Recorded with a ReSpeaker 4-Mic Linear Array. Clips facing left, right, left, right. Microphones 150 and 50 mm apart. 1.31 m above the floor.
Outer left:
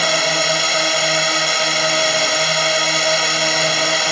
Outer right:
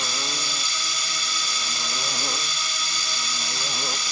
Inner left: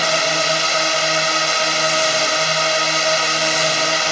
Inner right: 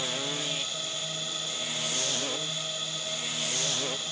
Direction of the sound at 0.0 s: 75° left (ahead or behind).